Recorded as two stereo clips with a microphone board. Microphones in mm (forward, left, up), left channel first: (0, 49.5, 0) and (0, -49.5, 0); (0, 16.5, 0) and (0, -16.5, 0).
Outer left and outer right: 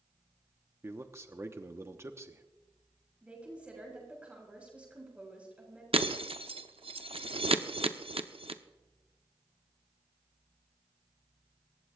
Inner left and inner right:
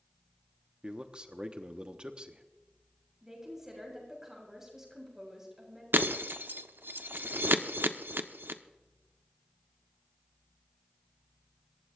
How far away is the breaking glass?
About 0.8 m.